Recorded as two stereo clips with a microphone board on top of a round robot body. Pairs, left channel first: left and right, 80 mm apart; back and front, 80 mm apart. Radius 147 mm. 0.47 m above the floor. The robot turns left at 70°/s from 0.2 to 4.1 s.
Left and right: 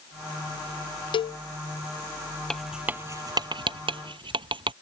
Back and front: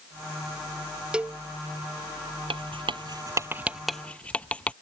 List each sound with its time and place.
1.1 s a cowbell: 80° left; by 1.4 s 60° left
2.5 s writing: 10° left; by 4.7 s 105° right